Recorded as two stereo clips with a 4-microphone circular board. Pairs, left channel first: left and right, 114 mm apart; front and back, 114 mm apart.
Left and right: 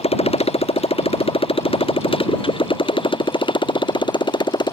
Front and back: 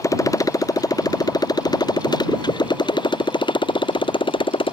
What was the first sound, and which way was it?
A motorcycle, 60° left.